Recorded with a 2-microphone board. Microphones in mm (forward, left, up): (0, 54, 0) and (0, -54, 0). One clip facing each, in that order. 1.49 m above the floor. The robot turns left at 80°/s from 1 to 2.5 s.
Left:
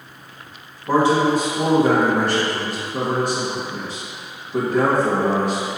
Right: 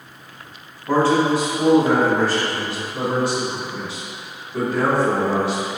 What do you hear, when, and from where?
0.9 s a man speaking: 165° left, 2.0 m; by 5.7 s 45° left, 2.0 m